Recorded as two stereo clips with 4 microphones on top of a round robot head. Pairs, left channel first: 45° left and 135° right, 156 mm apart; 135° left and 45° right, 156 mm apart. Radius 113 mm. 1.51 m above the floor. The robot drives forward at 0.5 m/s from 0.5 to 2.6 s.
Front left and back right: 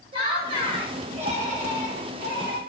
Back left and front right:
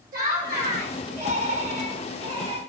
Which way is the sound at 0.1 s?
75° right.